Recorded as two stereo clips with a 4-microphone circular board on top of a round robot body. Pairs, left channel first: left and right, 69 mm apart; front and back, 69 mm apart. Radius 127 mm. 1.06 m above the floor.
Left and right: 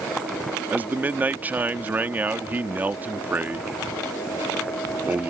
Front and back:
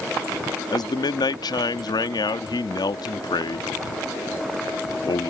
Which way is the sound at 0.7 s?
20° right.